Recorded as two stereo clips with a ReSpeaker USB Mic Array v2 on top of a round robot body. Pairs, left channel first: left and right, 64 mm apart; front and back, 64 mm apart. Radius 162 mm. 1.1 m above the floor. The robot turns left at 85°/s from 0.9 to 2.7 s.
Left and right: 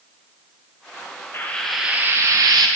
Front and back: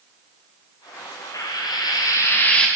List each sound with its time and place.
1.3 s frying: 35° left, 0.7 m; by 2.7 s 80° right, 0.7 m